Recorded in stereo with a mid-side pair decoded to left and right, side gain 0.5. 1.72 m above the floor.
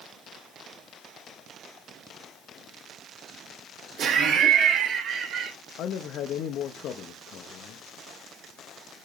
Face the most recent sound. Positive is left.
turn(degrees=65)